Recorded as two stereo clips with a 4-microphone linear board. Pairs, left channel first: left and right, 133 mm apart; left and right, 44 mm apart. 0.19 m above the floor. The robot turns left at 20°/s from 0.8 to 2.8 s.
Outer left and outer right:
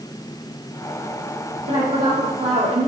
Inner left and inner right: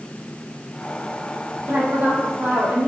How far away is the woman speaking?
About 4 m.